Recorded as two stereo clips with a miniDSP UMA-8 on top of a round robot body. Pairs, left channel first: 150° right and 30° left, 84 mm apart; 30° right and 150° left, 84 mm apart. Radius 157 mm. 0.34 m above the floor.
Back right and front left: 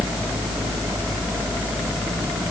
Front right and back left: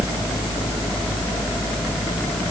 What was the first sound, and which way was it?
Only background noise.